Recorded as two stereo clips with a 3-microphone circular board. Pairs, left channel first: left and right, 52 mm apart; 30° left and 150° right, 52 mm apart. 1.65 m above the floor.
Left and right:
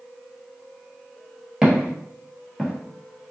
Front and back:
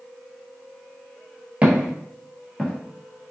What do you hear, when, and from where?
1.6 s footsteps: 160° right, 1.7 m; by 3.3 s 20° left, 1.7 m